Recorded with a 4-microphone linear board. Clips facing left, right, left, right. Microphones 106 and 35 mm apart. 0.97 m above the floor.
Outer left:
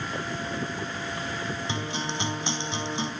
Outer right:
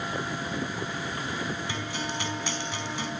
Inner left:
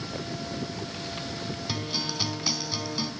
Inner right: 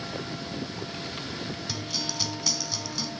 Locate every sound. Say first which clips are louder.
1.7 s a guitar: outer left 2 dB, inner left 4 dB; 25° left (ahead or behind), 4 m